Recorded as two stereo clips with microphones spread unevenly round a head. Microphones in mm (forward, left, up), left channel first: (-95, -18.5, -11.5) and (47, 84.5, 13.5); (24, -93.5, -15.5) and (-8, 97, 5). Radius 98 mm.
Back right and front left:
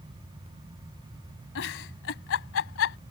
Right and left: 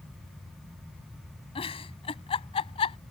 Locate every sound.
1.6 s a giggle: 145° right